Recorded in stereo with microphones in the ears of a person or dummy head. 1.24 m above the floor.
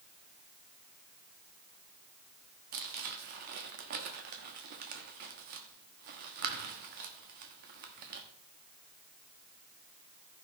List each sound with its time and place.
2.7 s crumpling: 45° right (ahead or behind), 1.0 m